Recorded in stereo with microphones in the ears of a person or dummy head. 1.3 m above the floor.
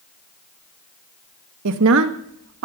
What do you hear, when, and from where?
1.6 s a woman speaking: 65° right (ahead or behind), 1.3 m